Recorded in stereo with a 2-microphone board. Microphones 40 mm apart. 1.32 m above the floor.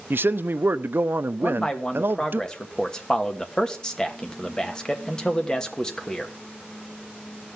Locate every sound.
0.1 s a man speaking: 60° right (ahead or behind), 0.5 m
1.4 s a man speaking: 20° left (ahead or behind), 1.3 m